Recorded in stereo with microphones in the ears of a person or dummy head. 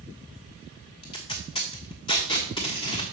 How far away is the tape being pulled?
About 1.2 m.